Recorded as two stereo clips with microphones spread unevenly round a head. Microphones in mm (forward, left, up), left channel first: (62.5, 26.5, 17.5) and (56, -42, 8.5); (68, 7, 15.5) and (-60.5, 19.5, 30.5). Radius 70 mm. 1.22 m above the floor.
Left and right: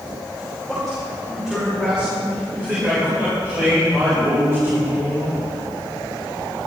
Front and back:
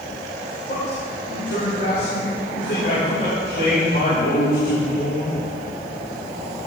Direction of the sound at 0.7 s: 5° right.